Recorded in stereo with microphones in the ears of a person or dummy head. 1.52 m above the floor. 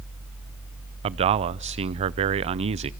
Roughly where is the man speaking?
Right.